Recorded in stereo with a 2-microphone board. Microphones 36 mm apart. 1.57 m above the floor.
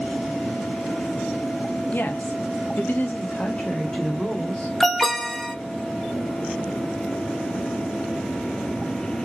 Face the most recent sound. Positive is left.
turn(degrees=5)  # may be behind; listen again after turning